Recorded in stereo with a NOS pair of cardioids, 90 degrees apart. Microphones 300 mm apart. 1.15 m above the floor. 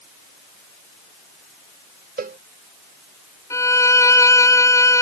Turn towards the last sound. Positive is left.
turn(degrees=10)